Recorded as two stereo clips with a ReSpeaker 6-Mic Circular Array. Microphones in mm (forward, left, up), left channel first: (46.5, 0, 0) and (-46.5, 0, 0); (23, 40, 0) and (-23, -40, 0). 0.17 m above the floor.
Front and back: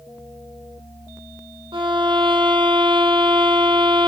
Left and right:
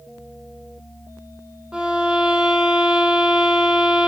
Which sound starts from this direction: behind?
A violin, at 1.7 s.